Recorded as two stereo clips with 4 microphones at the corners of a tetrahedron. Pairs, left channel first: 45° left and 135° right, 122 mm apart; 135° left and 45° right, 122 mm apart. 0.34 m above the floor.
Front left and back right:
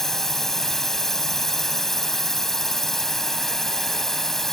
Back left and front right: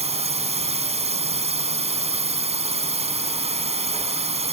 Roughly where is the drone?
Ahead right.